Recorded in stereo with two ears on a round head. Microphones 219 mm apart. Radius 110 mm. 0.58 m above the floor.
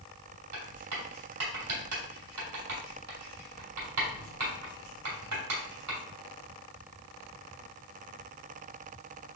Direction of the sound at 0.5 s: 70° right (ahead or behind).